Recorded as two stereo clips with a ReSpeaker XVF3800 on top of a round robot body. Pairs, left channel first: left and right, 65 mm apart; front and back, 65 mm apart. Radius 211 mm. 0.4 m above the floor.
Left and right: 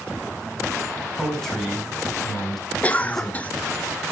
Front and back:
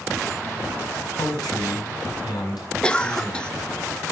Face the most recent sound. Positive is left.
turn(degrees=55)